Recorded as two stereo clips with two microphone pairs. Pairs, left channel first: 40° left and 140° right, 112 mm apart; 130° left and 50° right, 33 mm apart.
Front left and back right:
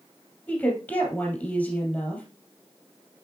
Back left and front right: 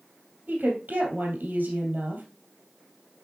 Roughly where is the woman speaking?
Ahead right.